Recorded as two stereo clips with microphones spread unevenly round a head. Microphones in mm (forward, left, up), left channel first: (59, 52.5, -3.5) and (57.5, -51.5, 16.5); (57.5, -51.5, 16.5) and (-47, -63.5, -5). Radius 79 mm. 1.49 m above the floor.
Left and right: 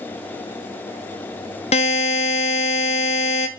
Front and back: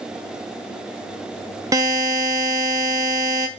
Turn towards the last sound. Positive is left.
turn(degrees=120)